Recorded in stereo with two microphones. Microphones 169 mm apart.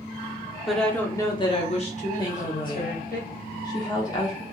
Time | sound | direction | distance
0.7 | a woman speaking | centre (ahead or behind) | 0.8 m
2.2 | a woman speaking | 25° left (ahead or behind) | 0.7 m